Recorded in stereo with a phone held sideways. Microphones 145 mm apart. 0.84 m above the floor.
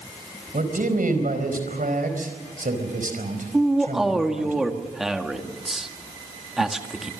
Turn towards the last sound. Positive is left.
turn(degrees=0)  # may be behind; listen again after turning